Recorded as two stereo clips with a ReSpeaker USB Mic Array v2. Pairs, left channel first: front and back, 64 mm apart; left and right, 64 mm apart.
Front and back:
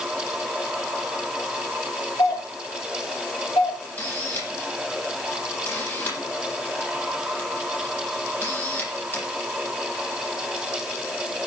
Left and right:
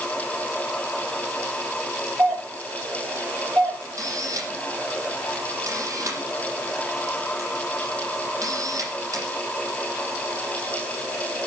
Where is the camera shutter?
55° right, 8 m.